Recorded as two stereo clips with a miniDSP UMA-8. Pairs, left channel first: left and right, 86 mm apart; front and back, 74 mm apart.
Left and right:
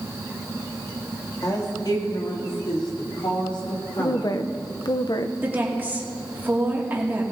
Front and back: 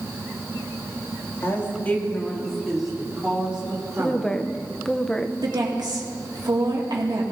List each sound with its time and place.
1.4 s a woman speaking: 50° left, 2.5 m; by 4.4 s 110° left, 4.5 m
4.0 s a woman speaking: 80° left, 0.7 m
5.4 s a woman speaking: 155° right, 2 m